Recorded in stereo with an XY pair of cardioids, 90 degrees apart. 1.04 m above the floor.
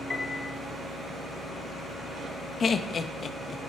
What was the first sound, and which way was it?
A piano, 35° left.